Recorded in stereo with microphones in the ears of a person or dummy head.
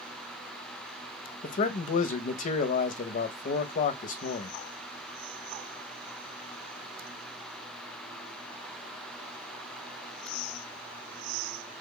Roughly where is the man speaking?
Left.